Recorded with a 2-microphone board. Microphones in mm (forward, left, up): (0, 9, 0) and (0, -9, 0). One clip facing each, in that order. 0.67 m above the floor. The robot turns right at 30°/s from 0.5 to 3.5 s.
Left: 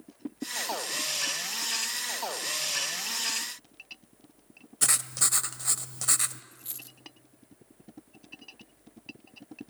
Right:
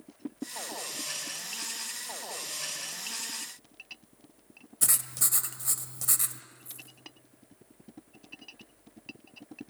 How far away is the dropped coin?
About 0.9 m.